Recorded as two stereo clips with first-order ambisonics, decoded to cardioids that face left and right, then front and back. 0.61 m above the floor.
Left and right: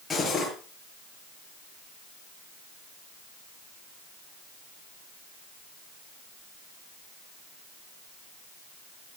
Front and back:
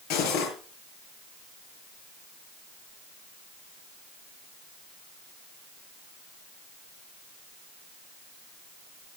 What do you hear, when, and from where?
0.1 s cutlery clinking: 15° left, 6 m